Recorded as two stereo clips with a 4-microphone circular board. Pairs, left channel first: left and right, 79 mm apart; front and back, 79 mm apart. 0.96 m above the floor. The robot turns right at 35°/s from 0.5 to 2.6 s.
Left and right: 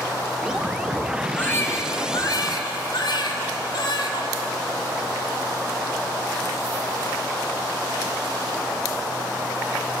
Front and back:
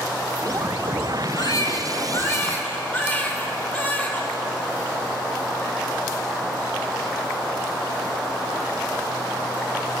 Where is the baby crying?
25° left, 2.5 m; by 4.3 s 70° left, 2.5 m.